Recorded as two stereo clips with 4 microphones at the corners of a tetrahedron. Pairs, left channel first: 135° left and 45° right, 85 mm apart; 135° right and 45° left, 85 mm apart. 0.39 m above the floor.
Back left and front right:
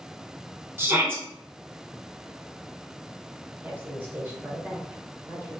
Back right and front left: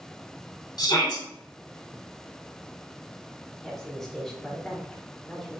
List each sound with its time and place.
0.8 s a shout: 105° right, 2.5 m
3.6 s a woman speaking: 55° right, 1.5 m